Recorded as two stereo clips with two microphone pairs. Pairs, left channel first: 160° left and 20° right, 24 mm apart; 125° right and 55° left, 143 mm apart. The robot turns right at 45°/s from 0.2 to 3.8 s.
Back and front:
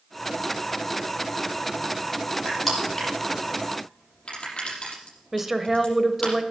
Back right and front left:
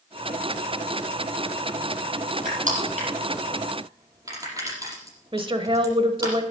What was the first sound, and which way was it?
Crushing, 60° left.